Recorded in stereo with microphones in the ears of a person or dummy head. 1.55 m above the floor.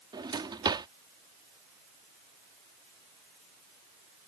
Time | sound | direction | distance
0.1 | a drawer | 20° right (ahead or behind) | ?